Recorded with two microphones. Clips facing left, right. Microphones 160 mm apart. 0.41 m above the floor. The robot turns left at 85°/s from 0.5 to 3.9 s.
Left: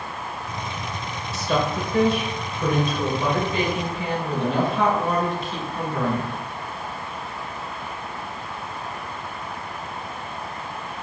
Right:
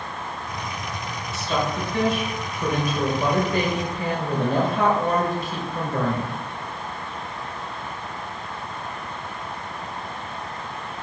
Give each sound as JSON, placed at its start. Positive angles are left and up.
{"t": 1.3, "sound": "a woman speaking", "azimuth_deg": 120, "distance_m": 1.6}